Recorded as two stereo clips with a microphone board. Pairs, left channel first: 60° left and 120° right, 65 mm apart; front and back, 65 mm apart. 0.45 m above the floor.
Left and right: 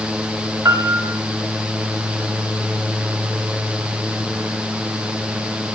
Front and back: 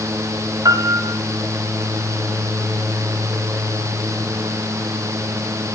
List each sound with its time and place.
0.7 s a piano: 160° right, 1.2 m